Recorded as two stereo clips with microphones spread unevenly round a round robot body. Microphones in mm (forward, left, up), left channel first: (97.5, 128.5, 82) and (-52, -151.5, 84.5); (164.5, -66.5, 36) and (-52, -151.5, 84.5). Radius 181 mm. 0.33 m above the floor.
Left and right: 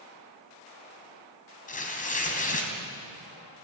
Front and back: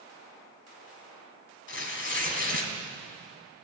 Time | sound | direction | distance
1.7 | tearing paper | 5° right | 3.5 m